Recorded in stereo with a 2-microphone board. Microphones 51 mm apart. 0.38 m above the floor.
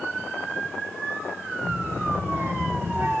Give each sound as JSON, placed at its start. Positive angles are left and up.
{"t": 1.6, "sound": "a child speaking", "side_deg": -45, "distance_m": 8.5}